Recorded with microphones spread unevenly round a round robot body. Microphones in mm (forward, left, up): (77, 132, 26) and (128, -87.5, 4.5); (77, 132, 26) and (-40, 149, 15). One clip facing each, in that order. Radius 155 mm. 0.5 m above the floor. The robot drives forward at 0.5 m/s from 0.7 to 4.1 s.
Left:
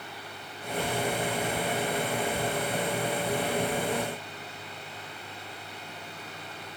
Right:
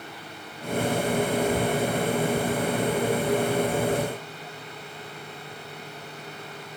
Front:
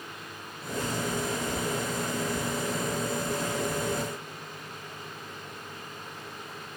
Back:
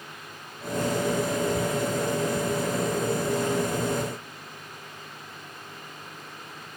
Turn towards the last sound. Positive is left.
No sound to turn to.